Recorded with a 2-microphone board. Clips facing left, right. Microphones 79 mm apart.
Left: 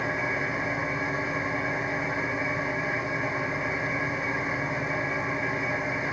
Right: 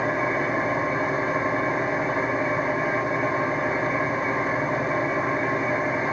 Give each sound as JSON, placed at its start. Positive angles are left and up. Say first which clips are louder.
{"t": 0.0, "sound": "an engine running", "louder": "right 5 dB", "side_deg": -50, "distance_m": 2.5}